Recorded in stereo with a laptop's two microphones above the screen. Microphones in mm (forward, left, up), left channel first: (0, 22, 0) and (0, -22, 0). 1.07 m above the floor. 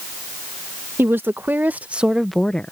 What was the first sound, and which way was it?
A woman speaking, 65° right (ahead or behind).